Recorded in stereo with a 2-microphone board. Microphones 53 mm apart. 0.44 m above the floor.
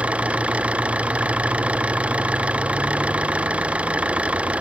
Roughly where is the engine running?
Right.